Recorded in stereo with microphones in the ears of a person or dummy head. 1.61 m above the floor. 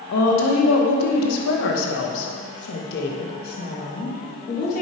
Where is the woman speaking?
65° left (ahead or behind), 2 m; by 4.8 s 45° left (ahead or behind), 3.5 m.